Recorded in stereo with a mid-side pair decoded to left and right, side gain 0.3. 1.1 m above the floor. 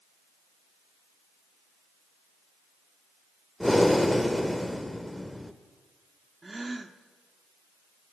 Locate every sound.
3.6 s breathing: 5° left, 1.8 m
6.4 s a gasp: 35° right, 1.5 m